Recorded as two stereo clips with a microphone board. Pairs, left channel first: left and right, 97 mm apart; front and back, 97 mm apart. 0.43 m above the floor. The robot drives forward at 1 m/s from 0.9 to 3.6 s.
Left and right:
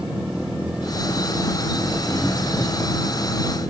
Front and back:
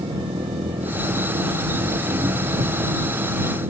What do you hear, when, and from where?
0.0 s an engine running: 170° right; by 3.7 s 175° right